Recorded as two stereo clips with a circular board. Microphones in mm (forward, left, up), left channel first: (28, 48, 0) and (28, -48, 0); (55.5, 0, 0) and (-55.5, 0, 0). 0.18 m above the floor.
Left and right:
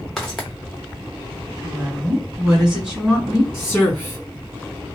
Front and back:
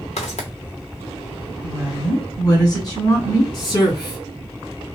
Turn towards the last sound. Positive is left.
turn(degrees=5)